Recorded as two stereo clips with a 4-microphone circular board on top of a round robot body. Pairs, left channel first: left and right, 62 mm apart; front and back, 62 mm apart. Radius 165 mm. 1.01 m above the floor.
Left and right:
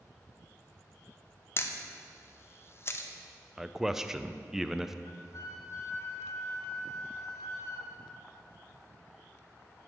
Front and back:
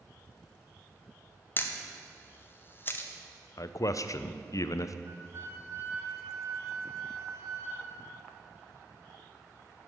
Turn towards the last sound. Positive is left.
turn(degrees=135)